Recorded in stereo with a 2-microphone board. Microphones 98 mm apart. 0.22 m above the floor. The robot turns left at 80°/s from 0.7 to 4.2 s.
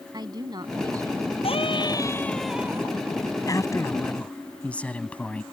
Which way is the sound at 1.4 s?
85° left.